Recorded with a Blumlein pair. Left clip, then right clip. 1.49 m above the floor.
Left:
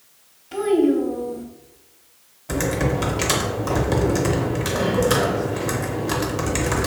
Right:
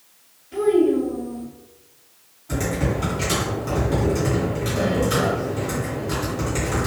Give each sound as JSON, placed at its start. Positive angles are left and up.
{"t": 0.5, "sound": "a child speaking", "azimuth_deg": 45, "distance_m": 0.8}
{"t": 2.5, "sound": "typing on a keyboard", "azimuth_deg": 60, "distance_m": 0.8}